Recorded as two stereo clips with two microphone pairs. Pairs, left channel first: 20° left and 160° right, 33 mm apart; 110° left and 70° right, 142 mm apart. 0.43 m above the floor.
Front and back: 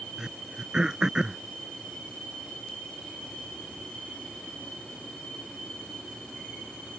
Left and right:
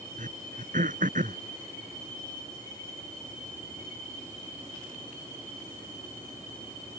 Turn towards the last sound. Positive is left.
turn(degrees=-90)